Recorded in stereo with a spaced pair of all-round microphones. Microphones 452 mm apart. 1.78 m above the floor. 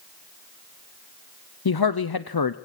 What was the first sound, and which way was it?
A man speaking, 55° left (ahead or behind).